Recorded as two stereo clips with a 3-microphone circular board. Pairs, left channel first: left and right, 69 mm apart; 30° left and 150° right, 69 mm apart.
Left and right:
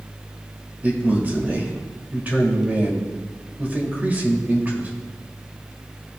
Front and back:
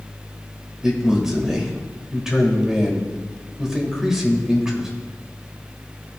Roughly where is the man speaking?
Right.